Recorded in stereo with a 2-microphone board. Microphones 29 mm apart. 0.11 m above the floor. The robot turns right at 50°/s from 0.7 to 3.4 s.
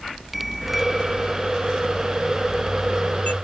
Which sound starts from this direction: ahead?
A bicycle bell, at 0.3 s.